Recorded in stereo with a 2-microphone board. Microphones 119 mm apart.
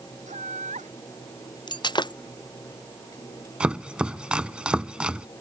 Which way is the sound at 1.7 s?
35° left (ahead or behind).